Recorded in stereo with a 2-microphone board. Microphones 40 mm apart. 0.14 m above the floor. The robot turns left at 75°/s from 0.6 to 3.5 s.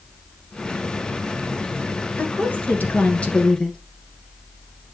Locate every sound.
2.2 s a woman speaking: 125° left, 1.9 m; by 3.8 s 25° left, 1.9 m